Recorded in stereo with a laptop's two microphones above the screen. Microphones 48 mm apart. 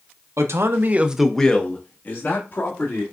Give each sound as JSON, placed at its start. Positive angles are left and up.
{"t": 0.4, "sound": "a man speaking", "side_deg": -75, "distance_m": 0.9}